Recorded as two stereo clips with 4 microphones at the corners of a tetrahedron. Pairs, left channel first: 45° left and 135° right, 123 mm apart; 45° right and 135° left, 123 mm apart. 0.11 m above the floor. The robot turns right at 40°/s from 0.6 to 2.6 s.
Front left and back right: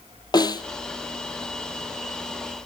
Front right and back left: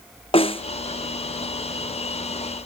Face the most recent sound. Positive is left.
turn(degrees=70)